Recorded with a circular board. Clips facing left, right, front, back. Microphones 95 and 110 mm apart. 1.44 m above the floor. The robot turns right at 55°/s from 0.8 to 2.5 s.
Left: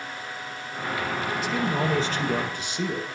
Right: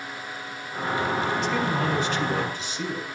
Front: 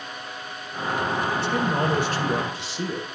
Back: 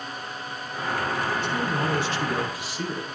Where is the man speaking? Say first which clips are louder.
Right 1 dB, front 3 dB; straight ahead, 2 m; by 3.1 s 60° left, 2 m.